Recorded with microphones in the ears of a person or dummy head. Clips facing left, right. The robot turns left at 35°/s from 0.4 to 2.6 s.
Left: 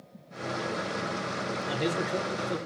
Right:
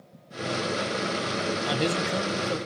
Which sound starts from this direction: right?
A man speaking, at 1.7 s.